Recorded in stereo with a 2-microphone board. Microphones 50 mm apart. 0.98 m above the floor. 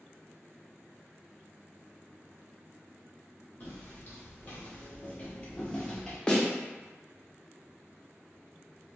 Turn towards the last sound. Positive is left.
turn(degrees=15)  # may be behind; listen again after turning